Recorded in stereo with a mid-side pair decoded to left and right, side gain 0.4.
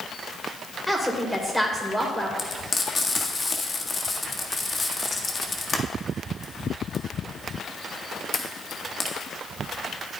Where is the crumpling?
No crumpling in this recording.